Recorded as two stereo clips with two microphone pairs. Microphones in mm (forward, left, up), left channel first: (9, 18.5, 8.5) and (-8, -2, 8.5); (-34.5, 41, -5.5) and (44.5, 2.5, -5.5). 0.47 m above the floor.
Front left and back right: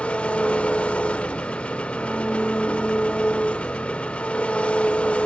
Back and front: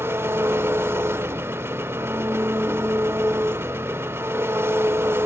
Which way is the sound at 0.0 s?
35° left.